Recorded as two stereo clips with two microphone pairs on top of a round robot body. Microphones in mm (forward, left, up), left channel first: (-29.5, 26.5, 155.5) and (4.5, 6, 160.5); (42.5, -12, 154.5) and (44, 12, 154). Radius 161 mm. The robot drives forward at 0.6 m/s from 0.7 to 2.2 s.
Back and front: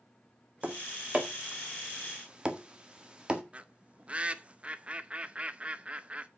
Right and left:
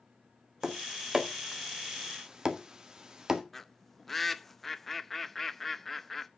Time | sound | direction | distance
0.6 | tapping | 20° left | 2.5 m
3.5 | a bird | 25° right | 1.0 m